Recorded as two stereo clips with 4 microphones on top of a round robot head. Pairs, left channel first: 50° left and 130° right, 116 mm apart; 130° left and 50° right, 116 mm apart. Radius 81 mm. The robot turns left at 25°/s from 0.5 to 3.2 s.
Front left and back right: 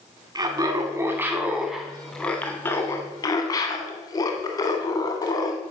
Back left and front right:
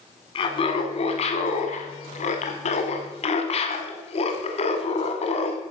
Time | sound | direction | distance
0.3 | laughter | 175° left | 1.5 m